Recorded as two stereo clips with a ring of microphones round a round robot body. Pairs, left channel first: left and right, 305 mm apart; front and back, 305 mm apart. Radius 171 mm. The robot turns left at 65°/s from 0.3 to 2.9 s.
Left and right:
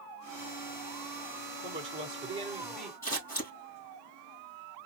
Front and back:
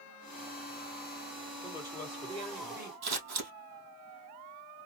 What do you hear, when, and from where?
1.6 s a woman speaking: 60° right, 1.6 m; by 2.9 s 145° right, 1.6 m
3.0 s scissors: 175° left, 3 m